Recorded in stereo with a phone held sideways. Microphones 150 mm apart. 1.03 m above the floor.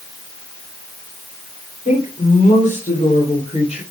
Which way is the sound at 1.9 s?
55° left (ahead or behind).